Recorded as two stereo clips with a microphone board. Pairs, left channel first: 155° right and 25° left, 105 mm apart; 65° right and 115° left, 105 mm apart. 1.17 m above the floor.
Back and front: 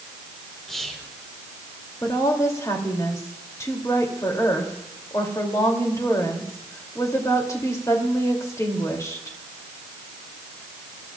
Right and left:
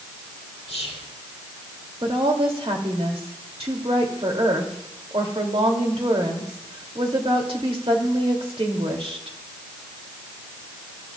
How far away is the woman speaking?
About 2.5 m.